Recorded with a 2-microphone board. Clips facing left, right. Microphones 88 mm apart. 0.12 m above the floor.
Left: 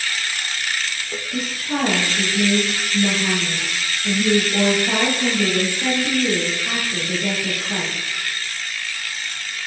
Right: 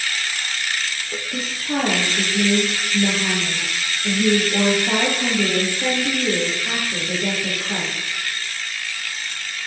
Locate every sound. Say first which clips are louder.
1.3 s a woman speaking: even; 25° right (ahead or behind), 2 m